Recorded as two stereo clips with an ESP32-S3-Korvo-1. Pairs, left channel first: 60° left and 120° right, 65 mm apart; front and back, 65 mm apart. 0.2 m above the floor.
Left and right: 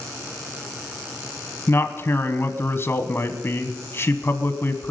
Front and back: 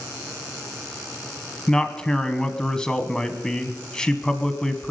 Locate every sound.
1.7 s a man speaking: 75° left, 1.3 m